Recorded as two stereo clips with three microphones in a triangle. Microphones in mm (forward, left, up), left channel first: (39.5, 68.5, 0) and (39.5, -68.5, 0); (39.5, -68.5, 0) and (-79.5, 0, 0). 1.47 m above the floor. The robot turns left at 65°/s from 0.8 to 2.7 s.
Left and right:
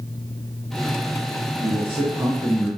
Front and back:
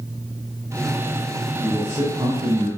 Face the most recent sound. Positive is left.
turn(degrees=170)